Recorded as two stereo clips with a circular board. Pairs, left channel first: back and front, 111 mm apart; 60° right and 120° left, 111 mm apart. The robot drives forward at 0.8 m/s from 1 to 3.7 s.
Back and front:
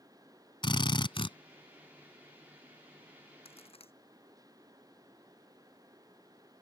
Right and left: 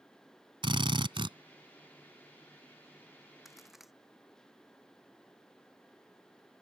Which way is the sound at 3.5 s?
150° right.